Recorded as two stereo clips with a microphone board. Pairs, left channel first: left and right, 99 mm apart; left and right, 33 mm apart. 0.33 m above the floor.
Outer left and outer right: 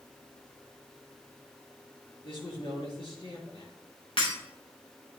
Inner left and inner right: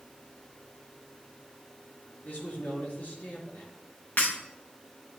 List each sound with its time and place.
2.2 s a man speaking: 60° left (ahead or behind), 3.5 m
4.2 s breaking glass: 70° left (ahead or behind), 5.5 m